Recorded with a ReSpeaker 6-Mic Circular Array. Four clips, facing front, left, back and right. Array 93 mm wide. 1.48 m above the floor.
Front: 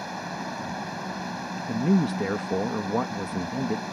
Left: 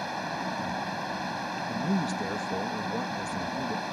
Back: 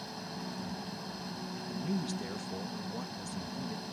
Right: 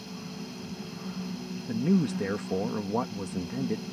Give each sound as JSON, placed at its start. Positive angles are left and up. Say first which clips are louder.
{"t": 0.0, "sound": "running water", "louder": "left 8 dB, front 9 dB", "azimuth_deg": 55}
{"t": 1.7, "sound": "a man speaking", "louder": "right 5 dB, front 13 dB", "azimuth_deg": -20}